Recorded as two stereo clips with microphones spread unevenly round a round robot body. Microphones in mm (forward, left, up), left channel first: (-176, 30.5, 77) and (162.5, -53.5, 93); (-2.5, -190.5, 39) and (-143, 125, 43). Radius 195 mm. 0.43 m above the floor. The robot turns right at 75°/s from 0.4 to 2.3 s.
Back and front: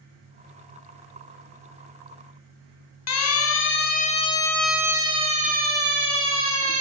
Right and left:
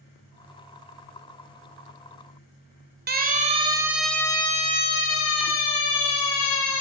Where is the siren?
165° left, 2.5 m; by 6.8 s 60° right, 3.5 m.